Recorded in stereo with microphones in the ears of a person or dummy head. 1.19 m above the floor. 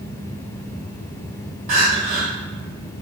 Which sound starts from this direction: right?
Crying, at 1.7 s.